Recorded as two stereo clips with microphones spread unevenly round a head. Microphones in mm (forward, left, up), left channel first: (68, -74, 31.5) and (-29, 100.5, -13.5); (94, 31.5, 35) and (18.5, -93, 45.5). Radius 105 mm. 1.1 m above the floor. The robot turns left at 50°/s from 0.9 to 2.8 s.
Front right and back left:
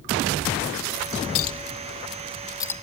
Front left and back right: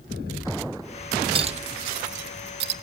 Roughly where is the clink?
Right.